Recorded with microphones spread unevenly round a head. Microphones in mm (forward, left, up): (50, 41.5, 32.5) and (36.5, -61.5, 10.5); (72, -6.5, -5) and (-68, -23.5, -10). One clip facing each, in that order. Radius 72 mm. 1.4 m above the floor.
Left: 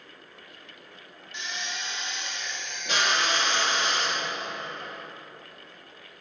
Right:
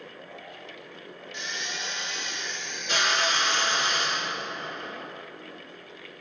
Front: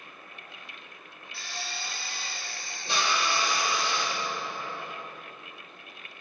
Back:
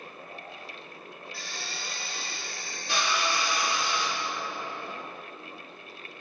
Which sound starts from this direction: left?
A drill, at 1.3 s.